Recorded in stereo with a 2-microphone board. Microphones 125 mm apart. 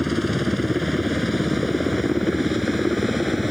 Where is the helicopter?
Centre (ahead or behind).